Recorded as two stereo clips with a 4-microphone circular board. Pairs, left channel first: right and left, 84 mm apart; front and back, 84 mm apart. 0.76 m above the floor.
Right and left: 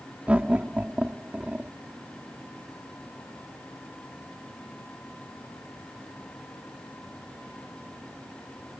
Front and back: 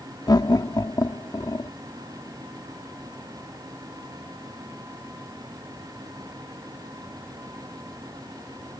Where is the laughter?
20° left.